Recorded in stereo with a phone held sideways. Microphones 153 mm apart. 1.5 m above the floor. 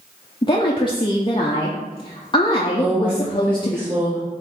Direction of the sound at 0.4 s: 30° left (ahead or behind).